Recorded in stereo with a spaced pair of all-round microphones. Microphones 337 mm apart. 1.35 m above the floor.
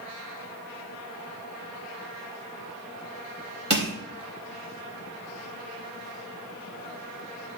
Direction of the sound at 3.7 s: 40° right (ahead or behind).